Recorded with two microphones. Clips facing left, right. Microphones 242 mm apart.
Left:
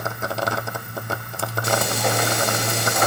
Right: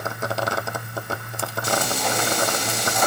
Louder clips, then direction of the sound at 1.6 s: Left 2 dB; 65° left (ahead or behind).